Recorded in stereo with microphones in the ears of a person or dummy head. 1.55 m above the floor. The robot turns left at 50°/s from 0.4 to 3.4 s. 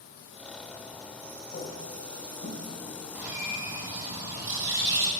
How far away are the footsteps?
About 2 m.